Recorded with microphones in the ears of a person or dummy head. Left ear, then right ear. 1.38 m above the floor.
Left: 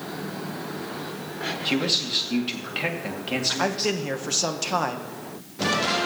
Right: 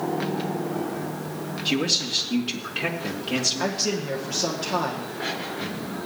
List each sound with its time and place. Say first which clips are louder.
1.6 s a man speaking: right 1 dB; 10° left (ahead or behind), 2 m
3.6 s a man speaking: left 1 dB; 55° left (ahead or behind), 1.4 m